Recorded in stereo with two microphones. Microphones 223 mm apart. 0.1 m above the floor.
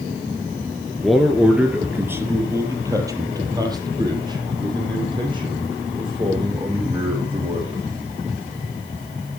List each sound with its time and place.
1.0 s a man speaking: centre (ahead or behind), 2 m; by 7.8 s 25° right (ahead or behind), 8.5 m